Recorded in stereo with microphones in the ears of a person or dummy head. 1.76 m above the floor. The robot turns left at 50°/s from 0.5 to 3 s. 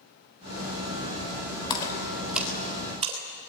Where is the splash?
30° left (ahead or behind), 3.5 m; by 3.5 s 30° right (ahead or behind), 3.5 m.